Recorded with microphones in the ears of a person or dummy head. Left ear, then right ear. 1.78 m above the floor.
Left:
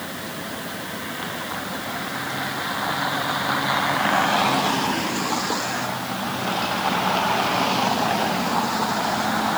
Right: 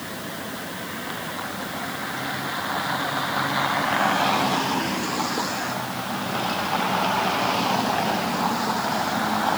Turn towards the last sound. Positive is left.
No sound to turn to.